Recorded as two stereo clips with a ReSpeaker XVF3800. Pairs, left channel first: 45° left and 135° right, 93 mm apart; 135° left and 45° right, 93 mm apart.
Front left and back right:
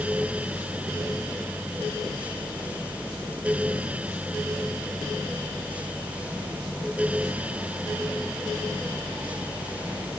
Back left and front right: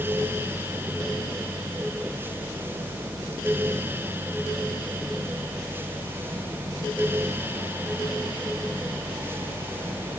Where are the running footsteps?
I don't hear running footsteps.